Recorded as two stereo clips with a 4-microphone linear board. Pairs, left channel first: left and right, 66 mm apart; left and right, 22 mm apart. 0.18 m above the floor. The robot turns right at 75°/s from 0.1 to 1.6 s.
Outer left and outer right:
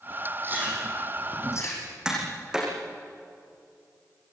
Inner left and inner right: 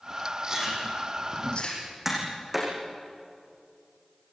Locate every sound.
0.4 s chewing: 35° right (ahead or behind), 6.5 m; by 1.9 s 50° left (ahead or behind), 6.5 m
2.0 s tapping: 10° right (ahead or behind), 7.5 m